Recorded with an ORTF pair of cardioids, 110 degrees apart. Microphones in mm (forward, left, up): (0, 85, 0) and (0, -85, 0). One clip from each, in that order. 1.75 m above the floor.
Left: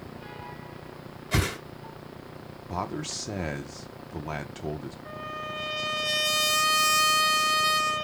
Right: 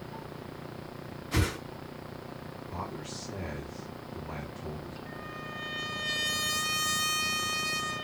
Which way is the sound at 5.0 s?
65° left.